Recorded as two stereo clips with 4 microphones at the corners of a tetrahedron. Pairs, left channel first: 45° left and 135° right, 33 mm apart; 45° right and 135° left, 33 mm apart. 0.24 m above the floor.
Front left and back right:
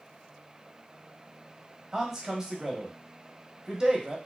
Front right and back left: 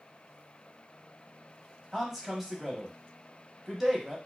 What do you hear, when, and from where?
1.9 s a man speaking: 170° right, 1.1 m